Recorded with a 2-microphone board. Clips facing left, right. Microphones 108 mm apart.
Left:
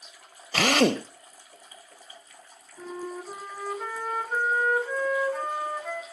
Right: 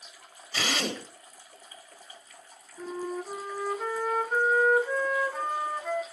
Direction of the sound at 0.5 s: 65° left (ahead or behind).